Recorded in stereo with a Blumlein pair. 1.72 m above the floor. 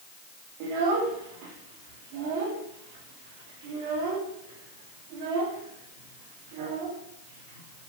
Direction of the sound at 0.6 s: 45° right.